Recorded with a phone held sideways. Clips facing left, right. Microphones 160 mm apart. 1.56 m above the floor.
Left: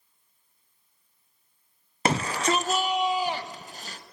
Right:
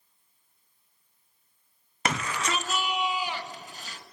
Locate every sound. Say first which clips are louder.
2.0 s a shout: left 5 dB; 30° left (ahead or behind), 0.7 m; by 4.0 s 40° left (ahead or behind), 2.5 m